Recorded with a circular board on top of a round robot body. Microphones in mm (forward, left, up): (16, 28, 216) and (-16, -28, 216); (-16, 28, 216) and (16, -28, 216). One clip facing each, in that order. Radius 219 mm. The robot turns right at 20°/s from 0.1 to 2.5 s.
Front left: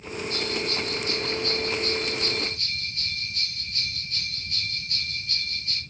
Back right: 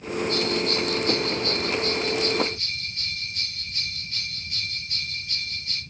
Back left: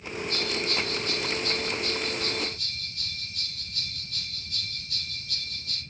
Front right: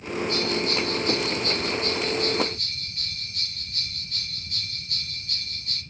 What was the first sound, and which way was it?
A bell, 100° right.